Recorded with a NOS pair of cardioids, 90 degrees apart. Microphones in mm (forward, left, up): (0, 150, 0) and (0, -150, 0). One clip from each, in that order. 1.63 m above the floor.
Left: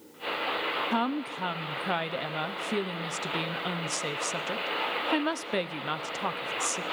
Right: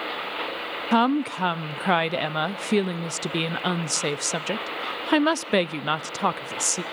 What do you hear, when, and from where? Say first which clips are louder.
0.9 s a woman speaking: right 8 dB; 35° right, 0.6 m